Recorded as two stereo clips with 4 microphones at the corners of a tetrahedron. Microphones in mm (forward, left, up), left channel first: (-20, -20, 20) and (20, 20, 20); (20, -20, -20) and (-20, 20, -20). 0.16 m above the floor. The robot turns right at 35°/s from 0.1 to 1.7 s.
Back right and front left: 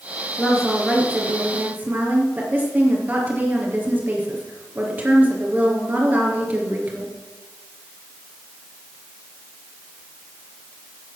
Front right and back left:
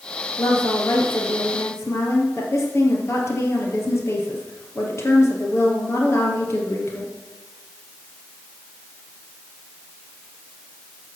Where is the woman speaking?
60° right, 3.5 m; by 7.1 s 15° right, 3.5 m.